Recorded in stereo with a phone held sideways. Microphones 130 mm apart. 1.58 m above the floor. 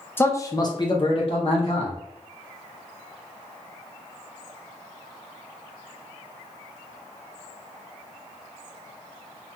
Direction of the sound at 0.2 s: 15° left (ahead or behind).